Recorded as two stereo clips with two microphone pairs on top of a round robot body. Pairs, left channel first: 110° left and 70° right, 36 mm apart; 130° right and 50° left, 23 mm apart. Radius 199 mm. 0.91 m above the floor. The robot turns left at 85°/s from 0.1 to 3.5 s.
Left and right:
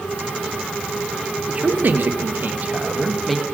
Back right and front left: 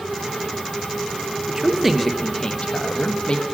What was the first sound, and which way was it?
A man speaking, 10° right.